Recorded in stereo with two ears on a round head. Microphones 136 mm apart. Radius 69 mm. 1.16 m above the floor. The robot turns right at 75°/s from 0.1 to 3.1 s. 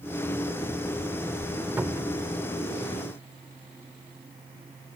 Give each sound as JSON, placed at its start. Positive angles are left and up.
{"t": 1.8, "sound": "a cupboard door", "azimuth_deg": -165}